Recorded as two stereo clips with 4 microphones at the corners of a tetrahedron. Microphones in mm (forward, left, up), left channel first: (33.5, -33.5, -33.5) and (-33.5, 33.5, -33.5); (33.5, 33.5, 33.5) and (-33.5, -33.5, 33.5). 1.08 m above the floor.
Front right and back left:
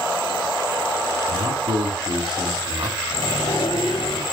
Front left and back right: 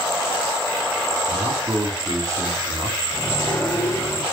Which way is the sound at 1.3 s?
170° left.